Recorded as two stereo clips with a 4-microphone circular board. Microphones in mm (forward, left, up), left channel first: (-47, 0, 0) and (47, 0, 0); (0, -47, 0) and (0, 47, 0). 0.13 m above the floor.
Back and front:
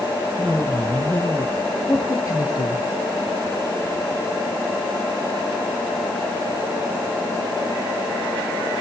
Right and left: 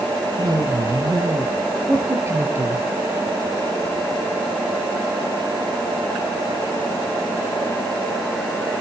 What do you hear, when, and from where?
0.4 s a woman speaking: 95° left, 1.8 m; by 2.9 s 150° left, 2.5 m